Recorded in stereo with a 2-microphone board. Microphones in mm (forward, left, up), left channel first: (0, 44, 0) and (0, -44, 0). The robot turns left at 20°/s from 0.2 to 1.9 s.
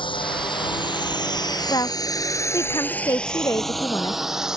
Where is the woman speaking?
40° left (ahead or behind).